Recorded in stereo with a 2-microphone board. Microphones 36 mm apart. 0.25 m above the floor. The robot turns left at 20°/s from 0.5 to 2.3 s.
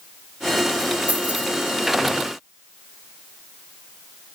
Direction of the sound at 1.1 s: 45° right (ahead or behind).